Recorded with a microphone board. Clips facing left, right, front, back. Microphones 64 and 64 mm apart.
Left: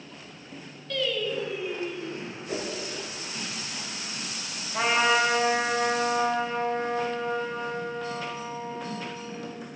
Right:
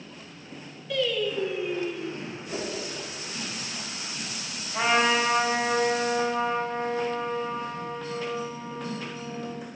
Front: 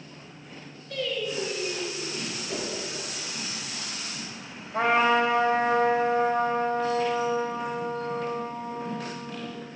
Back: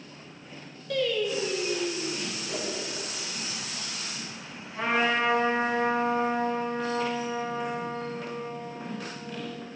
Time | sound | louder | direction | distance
0.9 | singing | right 2 dB, back 3 dB | 170° right | 2 m
2.5 | a whoosh | left 1 dB, front 1 dB | 75° left | 3 m
4.7 | a trumpet | even, front 4 dB | 10° left | 4.5 m